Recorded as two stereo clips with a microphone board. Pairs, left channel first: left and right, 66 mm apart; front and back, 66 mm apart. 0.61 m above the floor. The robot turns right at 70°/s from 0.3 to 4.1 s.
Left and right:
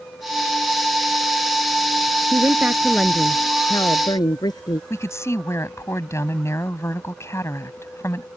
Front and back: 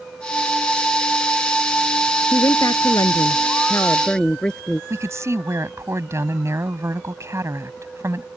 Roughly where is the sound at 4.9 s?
Behind left.